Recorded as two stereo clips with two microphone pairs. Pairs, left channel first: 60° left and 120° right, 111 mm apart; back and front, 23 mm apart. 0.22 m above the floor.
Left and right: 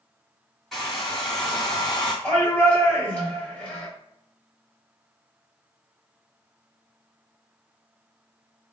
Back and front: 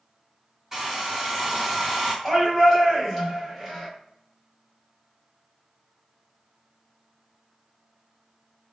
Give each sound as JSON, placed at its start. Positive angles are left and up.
{"t": 0.7, "sound": "a hair dryer", "azimuth_deg": -20, "distance_m": 1.7}
{"t": 2.2, "sound": "a shout", "azimuth_deg": 110, "distance_m": 1.4}